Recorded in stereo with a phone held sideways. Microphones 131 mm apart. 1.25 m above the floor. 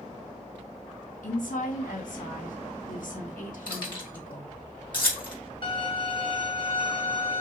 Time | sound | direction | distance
1.2 | a woman speaking | 80° left | 2.0 m
3.7 | keys jangling | 40° left (ahead or behind) | 2.5 m
5.6 | a violin | 35° left (ahead or behind) | 1.2 m